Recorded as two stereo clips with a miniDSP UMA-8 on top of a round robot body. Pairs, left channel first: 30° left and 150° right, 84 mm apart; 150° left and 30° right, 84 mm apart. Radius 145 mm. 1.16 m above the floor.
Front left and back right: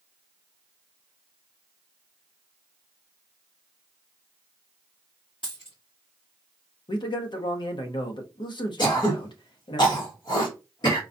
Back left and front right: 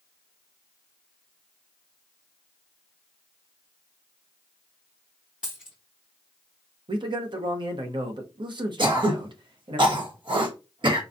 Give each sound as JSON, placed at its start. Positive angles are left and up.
{"t": 5.4, "sound": "a dropped coin", "azimuth_deg": 50, "distance_m": 0.7}
{"t": 6.9, "sound": "a man speaking", "azimuth_deg": 0, "distance_m": 0.9}
{"t": 8.8, "sound": "throat clearing", "azimuth_deg": -5, "distance_m": 1.3}